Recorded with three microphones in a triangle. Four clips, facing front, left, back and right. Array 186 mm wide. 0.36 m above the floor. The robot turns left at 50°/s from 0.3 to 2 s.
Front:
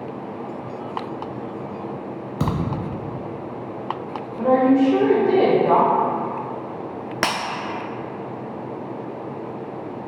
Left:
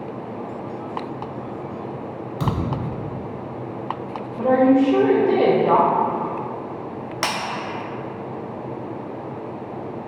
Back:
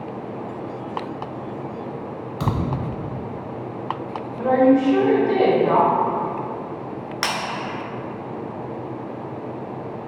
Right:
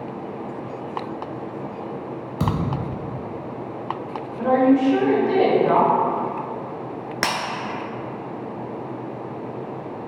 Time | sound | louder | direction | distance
2.4 | a thud | right 1 dB, even | 35° right | 0.7 m
4.4 | a woman speaking | left 1 dB, even | 65° left | 0.9 m
7.2 | breaking glass | right 1 dB, front 3 dB | 25° right | 0.7 m